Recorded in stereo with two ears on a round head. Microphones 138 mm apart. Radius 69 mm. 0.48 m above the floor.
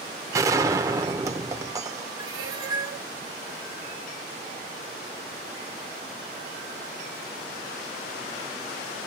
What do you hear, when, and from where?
0.3 s a gunshot: 20° right (ahead or behind), 0.8 m
2.2 s a cat meowing: 25° right (ahead or behind), 3 m